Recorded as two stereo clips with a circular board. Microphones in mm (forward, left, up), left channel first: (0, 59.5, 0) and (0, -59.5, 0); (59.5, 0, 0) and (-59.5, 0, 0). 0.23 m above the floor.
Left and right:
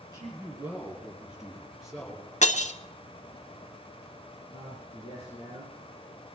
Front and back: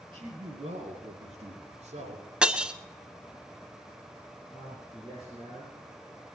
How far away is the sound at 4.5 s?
About 7 m.